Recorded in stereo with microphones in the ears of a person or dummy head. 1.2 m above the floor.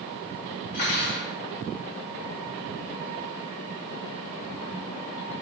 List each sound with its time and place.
0.7 s cutlery clinking: 45° left (ahead or behind), 1.1 m